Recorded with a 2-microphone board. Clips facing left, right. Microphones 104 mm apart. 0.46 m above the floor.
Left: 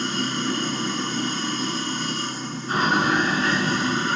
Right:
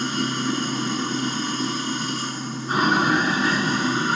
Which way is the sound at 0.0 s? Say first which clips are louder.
Right 1 dB; 10° right (ahead or behind).